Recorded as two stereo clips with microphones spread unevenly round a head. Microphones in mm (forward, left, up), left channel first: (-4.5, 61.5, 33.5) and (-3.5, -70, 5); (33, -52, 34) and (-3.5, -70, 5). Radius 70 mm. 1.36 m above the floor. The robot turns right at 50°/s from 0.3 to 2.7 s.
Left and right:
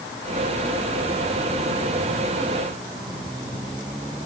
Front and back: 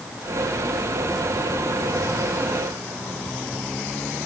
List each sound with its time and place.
Only background noise.